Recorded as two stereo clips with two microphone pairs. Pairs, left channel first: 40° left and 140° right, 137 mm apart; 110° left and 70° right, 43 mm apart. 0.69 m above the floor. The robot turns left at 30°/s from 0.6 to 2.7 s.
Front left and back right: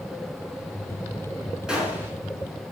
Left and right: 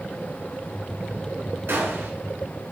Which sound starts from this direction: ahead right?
A gunshot, at 1.7 s.